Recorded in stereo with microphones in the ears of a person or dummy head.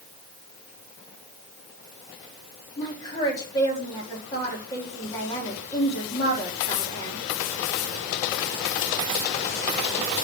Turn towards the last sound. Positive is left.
turn(degrees=20)  # may be behind; listen again after turning